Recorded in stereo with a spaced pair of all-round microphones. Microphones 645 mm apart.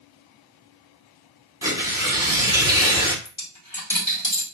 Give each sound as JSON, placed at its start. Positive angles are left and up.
{"t": 1.6, "sound": "tearing paper", "side_deg": -5, "distance_m": 1.0}
{"t": 3.2, "sound": "a dropped coin", "side_deg": 50, "distance_m": 2.0}